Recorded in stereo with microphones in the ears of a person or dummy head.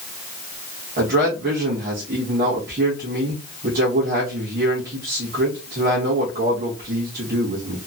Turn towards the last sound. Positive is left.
turn(degrees=-50)  # may be behind; listen again after turning